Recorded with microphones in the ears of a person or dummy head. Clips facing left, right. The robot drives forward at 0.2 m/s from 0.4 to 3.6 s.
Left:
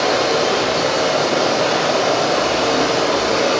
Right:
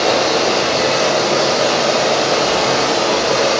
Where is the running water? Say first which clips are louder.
Right 2 dB; 70° right (ahead or behind), 1.0 m.